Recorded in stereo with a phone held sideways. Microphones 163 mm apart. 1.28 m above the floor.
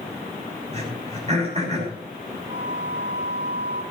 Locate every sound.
0.7 s throat clearing: 40° right (ahead or behind), 7 m
2.5 s a flute: 80° right, 3.5 m